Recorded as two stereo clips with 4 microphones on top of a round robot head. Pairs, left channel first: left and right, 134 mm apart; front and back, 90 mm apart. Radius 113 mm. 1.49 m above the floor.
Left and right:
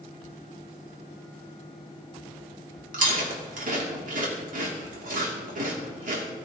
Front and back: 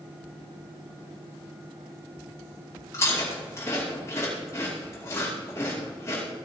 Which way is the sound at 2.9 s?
70° right.